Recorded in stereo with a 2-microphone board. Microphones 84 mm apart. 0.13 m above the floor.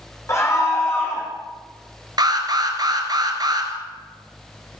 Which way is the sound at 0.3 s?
35° left (ahead or behind).